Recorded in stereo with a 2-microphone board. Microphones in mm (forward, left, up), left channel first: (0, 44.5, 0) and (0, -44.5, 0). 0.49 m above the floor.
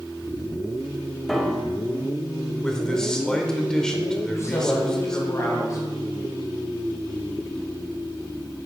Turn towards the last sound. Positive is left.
turn(degrees=35)  # may be behind; listen again after turning